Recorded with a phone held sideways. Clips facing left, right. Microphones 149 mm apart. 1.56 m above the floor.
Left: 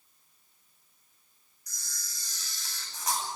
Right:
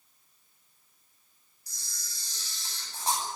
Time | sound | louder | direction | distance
1.7 | a camera shutter | left 1 dB | 30° right (ahead or behind) | 10 m